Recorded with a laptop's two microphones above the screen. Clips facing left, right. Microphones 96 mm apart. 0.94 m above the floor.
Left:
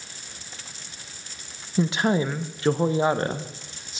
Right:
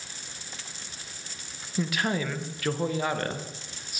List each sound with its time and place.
1.8 s a woman speaking: 25° left (ahead or behind), 0.6 m